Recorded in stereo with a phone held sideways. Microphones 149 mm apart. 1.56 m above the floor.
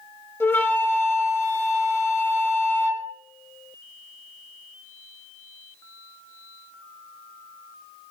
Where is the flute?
15° left (ahead or behind), 1.8 m.